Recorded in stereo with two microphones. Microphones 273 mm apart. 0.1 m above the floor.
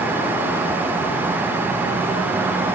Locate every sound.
Only background noise.